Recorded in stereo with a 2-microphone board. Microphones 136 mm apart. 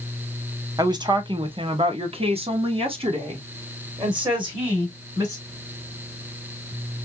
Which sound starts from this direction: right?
A woman speaking, at 0.8 s.